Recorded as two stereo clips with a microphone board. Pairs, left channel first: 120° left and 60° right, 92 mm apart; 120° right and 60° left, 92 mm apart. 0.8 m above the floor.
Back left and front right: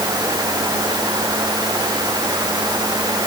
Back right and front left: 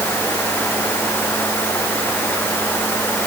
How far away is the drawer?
No drawer in this recording.